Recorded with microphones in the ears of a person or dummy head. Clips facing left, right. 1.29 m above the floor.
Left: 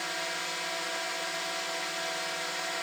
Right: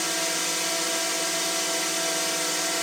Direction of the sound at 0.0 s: 50° right (ahead or behind).